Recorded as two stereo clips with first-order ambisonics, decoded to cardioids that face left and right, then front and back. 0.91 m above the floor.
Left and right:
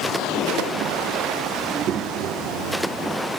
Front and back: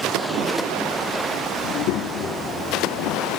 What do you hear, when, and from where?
1.6 s a child speaking: 15° right, 1.0 m; by 3.3 s 80° right, 2.5 m